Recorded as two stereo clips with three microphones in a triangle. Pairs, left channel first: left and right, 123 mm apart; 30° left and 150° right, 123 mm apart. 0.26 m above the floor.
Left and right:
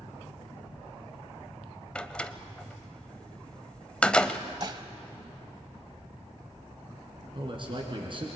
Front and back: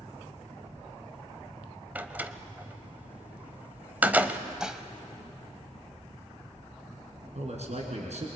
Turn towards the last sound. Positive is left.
turn(degrees=-135)